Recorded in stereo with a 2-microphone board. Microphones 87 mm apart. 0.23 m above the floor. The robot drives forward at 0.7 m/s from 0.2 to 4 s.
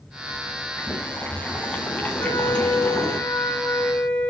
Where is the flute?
50° left (ahead or behind), 0.8 m; by 4.3 s 20° left (ahead or behind), 1.7 m.